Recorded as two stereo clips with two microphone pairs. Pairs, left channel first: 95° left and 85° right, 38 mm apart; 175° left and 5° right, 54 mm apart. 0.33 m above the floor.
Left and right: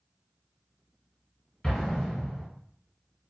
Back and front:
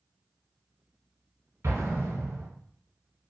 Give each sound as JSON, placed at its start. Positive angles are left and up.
{"t": 1.6, "sound": "an explosion", "azimuth_deg": 25, "distance_m": 1.0}